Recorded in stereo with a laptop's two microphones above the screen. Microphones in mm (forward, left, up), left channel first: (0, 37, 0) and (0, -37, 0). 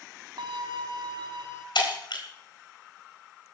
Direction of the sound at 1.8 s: 80° left.